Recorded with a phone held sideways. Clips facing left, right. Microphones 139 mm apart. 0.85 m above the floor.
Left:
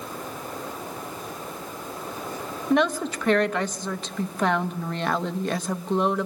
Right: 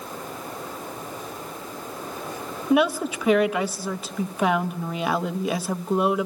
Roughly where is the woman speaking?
Centre.